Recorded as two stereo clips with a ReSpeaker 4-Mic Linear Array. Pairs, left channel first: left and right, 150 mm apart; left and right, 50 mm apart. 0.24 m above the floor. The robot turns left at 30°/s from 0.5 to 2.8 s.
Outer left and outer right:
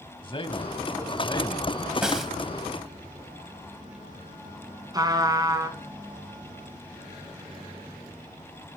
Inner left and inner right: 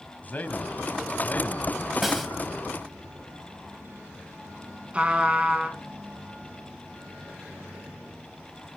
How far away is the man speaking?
About 1.6 m.